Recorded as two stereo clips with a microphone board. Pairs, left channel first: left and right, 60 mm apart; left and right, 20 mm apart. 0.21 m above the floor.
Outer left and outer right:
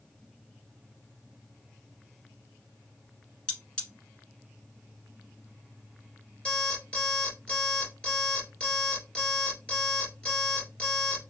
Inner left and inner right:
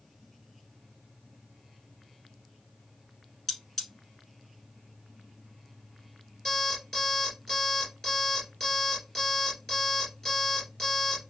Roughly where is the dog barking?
I don't hear a dog barking.